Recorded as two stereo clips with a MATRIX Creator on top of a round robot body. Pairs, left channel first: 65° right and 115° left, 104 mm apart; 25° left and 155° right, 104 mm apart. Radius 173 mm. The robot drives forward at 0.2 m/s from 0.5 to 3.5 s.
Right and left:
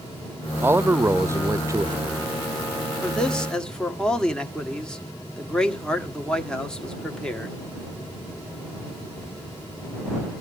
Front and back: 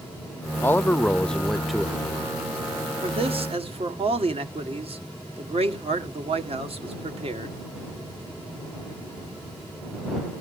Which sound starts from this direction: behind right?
A man speaking, at 3.0 s.